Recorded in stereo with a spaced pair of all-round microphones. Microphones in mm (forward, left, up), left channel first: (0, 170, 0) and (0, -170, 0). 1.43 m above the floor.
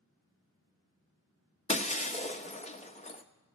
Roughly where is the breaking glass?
Centre.